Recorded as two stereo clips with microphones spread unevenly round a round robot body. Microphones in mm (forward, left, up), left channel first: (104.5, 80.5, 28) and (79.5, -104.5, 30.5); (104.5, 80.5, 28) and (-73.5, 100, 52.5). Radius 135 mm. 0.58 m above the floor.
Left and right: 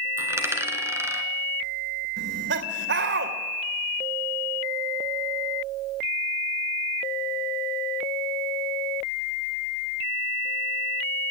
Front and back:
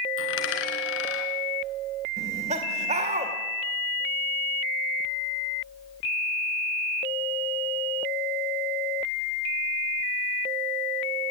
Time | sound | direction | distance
0.2 | a dropped coin | 20° right | 2.5 m
2.2 | laughter | 125° right | 2 m